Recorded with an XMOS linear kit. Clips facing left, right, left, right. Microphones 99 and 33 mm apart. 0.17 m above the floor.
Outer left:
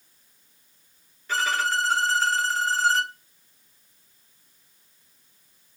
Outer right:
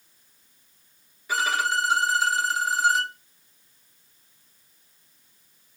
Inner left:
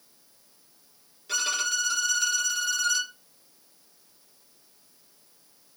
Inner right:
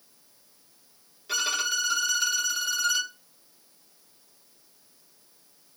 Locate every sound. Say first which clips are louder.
1.3 s a violin: even, inner right 1 dB; 10° right (ahead or behind), 0.7 m